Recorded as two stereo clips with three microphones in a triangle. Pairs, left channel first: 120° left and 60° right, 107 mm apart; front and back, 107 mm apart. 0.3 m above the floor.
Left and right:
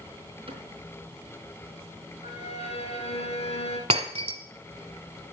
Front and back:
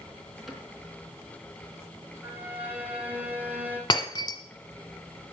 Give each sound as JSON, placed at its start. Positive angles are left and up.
{"t": 0.5, "sound": "a cupboard door", "azimuth_deg": -90, "distance_m": 4.0}
{"t": 2.2, "sound": "a violin", "azimuth_deg": 110, "distance_m": 2.5}
{"t": 3.9, "sound": "breaking glass", "azimuth_deg": -45, "distance_m": 1.5}